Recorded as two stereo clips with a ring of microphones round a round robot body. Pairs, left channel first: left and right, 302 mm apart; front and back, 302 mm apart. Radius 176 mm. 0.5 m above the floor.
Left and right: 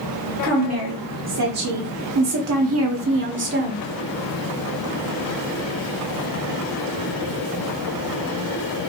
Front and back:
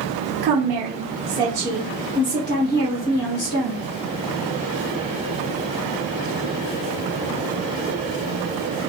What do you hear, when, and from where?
0.4 s a woman speaking: 135° right, 1.2 m; by 3.8 s 35° right, 1.5 m